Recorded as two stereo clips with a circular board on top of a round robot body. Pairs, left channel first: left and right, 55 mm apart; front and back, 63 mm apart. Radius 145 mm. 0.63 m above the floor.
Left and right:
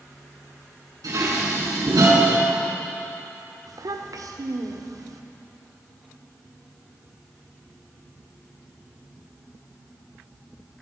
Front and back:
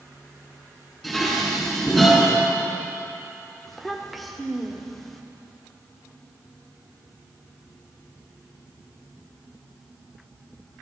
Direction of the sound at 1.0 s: 85° right.